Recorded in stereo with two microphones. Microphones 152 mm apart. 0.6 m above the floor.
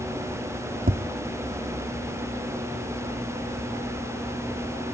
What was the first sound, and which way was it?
Tapping, 60° right (ahead or behind).